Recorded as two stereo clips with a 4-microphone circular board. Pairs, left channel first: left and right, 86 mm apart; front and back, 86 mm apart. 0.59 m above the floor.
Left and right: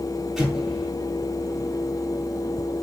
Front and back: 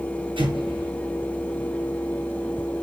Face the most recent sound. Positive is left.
turn(degrees=-175)